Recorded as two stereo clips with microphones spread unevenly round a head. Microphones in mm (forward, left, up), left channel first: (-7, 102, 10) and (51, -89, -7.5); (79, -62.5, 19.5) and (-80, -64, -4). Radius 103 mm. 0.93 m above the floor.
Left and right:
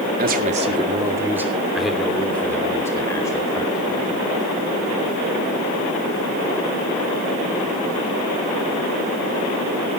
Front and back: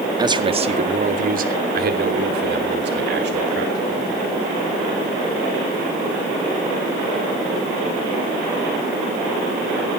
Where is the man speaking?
115° right, 1.9 m; by 4.4 s 175° left, 5.5 m.